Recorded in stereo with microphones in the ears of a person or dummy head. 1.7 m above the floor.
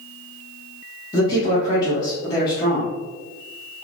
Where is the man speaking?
25° left (ahead or behind), 1.0 m.